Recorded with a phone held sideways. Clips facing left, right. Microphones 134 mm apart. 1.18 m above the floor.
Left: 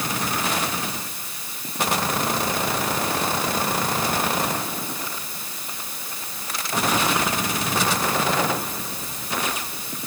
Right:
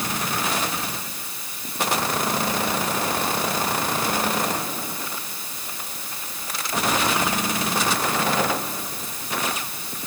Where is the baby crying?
I don't hear a baby crying.